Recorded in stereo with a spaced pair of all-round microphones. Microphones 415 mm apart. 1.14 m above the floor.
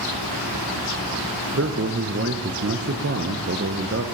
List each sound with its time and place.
1.5 s a man speaking: 35° right (ahead or behind), 0.6 m